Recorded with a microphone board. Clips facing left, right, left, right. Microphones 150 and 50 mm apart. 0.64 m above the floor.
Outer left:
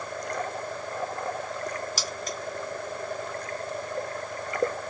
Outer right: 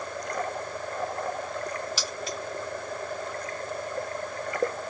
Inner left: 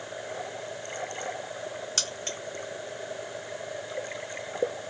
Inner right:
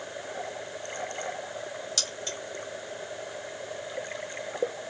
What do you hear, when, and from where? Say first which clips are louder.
2.0 s keys jangling: even, inner left 1 dB; 45° left (ahead or behind), 0.7 m